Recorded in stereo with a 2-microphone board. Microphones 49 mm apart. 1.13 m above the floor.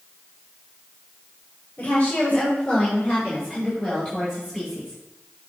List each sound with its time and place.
1.8 s a woman speaking: 30° left (ahead or behind), 3.5 m; by 5.0 s 5° left (ahead or behind), 6 m